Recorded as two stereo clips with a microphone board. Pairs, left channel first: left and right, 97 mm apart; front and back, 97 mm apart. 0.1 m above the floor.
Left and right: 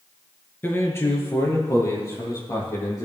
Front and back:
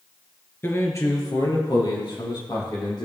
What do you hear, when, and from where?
0.6 s a man speaking: 45° left, 1.3 m; by 3.1 s 35° left, 3.5 m